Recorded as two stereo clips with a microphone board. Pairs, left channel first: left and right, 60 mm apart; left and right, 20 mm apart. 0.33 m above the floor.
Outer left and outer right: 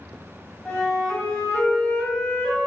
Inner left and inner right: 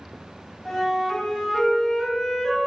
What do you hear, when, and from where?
0.7 s a flute: 30° left (ahead or behind), 1.7 m